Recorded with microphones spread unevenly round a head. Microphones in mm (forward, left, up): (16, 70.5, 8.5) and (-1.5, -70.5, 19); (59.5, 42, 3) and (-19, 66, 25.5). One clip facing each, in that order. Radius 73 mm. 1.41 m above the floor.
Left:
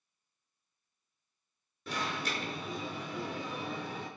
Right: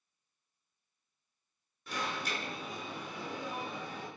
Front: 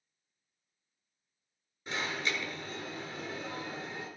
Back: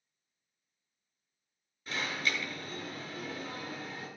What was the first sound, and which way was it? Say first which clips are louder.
An alarm: left 1 dB, even; 55° left.